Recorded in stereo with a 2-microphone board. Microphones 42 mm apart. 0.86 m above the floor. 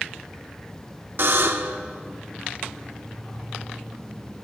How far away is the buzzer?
About 0.8 m.